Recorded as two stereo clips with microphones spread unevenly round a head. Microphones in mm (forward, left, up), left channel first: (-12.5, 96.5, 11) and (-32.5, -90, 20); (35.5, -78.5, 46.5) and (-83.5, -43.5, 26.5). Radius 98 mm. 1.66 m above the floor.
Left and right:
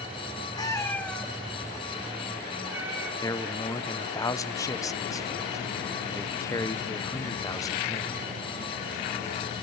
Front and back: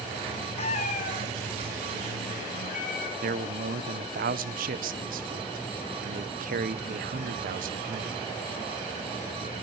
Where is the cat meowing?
15° left, 1.3 m; by 3.1 s 20° right, 4 m.